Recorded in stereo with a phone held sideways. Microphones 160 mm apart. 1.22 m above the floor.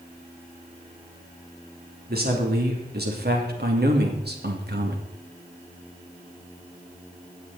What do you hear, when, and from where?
2.1 s a man speaking: 70° right (ahead or behind), 3 m; by 5.1 s 80° right, 2.0 m